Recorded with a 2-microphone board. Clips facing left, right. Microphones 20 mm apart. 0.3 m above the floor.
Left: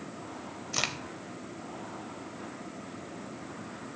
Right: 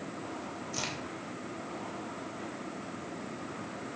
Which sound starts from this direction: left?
A crack, at 0.7 s.